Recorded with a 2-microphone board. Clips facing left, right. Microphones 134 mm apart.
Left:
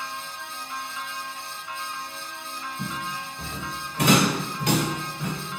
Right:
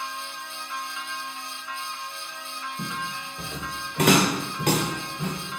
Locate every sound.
2.8 s footsteps: 80° right, 1.2 m; by 5.3 s 35° right (ahead or behind), 1.2 m